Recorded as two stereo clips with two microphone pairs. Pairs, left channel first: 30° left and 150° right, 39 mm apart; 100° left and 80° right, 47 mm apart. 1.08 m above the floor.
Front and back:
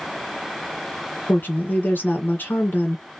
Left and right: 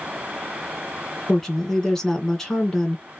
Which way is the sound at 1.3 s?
20° left.